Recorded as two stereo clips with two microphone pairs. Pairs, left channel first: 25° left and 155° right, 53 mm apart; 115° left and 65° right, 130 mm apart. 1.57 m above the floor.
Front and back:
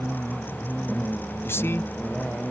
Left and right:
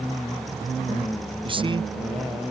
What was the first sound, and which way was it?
A man speaking, 15° right.